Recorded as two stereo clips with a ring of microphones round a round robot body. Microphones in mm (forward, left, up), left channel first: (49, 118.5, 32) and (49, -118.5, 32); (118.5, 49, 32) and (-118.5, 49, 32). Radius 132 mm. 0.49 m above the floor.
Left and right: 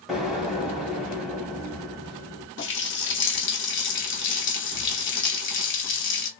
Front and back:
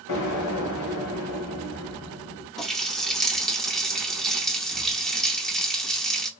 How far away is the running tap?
About 0.8 m.